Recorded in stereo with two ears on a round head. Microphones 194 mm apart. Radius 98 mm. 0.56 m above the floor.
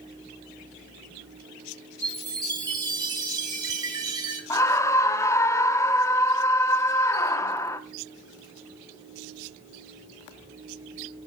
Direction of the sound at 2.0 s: 20° right (ahead or behind).